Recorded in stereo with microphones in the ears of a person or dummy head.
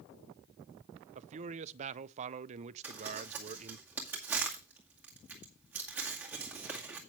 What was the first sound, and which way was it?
A man speaking, 40° right (ahead or behind).